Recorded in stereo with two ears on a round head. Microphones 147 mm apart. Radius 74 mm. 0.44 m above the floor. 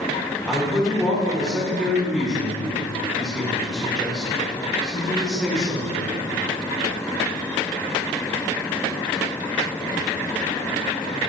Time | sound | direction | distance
0.5 | a man speaking | centre (ahead or behind) | 1.5 m